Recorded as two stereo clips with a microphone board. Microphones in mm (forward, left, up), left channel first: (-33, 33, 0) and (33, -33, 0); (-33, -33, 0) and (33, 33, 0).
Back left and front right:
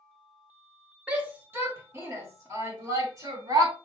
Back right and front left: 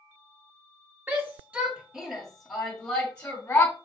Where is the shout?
10° left, 1.6 m; by 3.7 s 70° right, 2.0 m.